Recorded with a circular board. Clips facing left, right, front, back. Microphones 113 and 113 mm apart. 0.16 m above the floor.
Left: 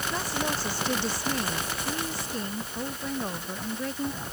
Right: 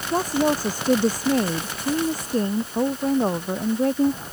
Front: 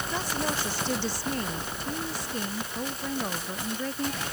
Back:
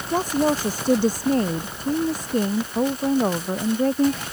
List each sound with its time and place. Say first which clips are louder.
0.1 s a woman speaking: right 12 dB, back 12 dB; 135° right